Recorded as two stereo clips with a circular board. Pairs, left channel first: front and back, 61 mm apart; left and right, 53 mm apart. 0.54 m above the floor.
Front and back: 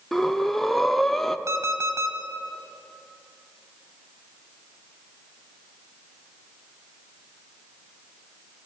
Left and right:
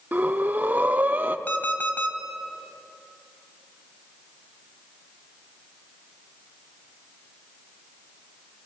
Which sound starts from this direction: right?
Breathing, at 0.1 s.